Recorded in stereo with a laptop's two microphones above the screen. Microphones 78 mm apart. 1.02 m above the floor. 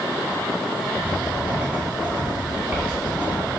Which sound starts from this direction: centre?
Writing, at 1.0 s.